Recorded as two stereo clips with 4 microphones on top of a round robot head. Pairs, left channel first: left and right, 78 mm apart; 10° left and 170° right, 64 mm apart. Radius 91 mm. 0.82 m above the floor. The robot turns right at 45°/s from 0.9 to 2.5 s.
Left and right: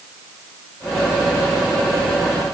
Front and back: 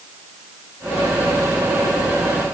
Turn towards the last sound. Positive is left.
No sound to turn to.